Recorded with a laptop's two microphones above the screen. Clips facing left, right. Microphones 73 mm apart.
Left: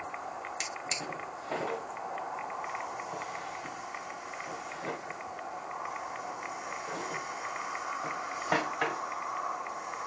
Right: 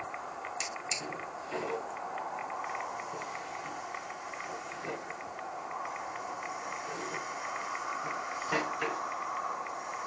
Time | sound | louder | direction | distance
0.6 | a drawer | left 1 dB | 60° left (ahead or behind) | 1.5 m